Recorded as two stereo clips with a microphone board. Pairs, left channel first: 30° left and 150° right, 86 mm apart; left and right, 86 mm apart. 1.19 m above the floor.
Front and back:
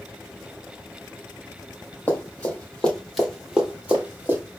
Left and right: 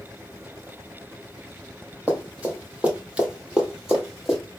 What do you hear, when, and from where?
2.1 s running footsteps: 25° right, 1.5 m; by 4.4 s 170° right, 1.3 m